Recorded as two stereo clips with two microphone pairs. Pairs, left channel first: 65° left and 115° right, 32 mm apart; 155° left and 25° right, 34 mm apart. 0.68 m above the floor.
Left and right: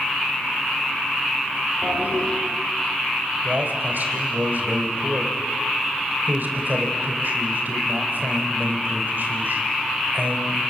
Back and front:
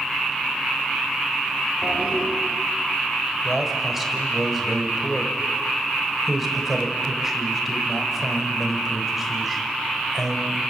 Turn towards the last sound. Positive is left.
turn(degrees=-110)